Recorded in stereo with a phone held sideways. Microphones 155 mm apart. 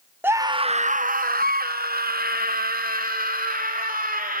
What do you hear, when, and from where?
0.2 s a scream: 15° right (ahead or behind), 0.7 m; by 4.4 s 65° right (ahead or behind), 3 m